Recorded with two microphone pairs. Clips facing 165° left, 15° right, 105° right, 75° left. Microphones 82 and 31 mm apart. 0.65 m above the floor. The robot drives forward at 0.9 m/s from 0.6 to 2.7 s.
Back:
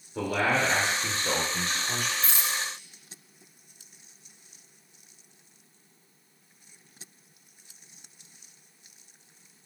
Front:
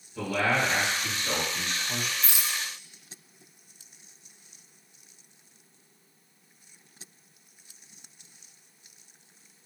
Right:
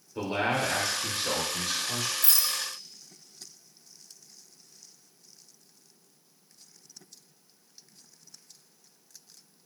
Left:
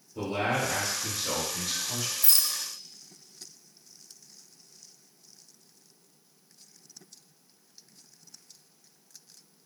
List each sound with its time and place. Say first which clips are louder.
0.1 s a man speaking: back 1 dB, right 1 dB; 155° right, 2.5 m; by 2.1 s 165° right, 4 m
2.2 s a rattle: back 2 dB, left 2 dB; 55° left, 0.7 m; by 2.6 s 85° left, 0.6 m